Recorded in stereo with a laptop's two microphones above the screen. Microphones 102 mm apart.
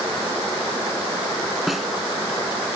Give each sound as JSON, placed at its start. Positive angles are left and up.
{"t": 1.7, "sound": "a snare drum", "side_deg": 0}